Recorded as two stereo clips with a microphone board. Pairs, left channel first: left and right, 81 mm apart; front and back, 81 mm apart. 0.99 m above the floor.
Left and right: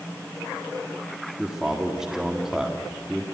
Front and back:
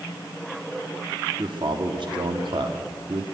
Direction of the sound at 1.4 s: 175° right.